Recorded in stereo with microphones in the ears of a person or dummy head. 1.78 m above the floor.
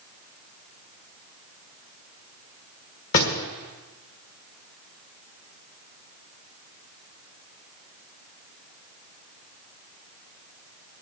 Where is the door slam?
45° left (ahead or behind), 1.5 m.